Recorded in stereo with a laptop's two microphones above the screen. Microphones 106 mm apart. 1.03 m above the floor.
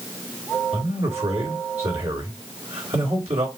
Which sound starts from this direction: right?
A man speaking, at 0.7 s.